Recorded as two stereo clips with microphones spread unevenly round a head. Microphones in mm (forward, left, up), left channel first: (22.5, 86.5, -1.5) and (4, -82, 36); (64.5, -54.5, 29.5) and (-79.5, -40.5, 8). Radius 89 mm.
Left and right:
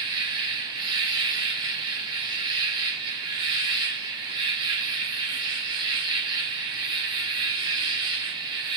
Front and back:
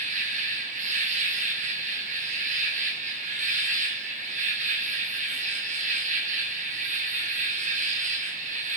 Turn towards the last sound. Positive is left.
turn(degrees=-165)